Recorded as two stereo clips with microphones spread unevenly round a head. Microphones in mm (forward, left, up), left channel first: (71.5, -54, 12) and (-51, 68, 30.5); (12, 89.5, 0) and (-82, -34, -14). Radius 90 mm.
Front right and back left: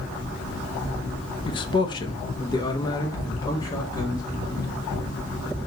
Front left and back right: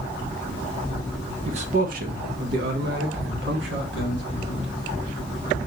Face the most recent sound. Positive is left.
turn(degrees=-115)